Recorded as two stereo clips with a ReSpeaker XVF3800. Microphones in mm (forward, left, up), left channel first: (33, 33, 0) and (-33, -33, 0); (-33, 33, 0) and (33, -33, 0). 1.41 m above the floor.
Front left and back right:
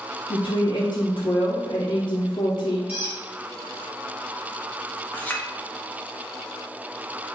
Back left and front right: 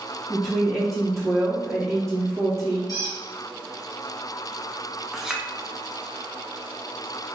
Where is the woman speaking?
50° left, 0.5 m.